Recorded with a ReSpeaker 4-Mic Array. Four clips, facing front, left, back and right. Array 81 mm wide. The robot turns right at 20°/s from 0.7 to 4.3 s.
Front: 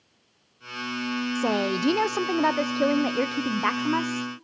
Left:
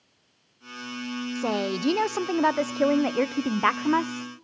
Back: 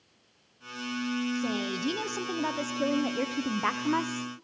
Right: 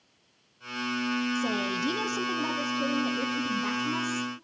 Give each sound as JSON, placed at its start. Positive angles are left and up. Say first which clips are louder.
{"t": 1.4, "sound": "a woman speaking", "louder": "left 2 dB, front 7 dB", "azimuth_deg": 35, "distance_m": 0.7}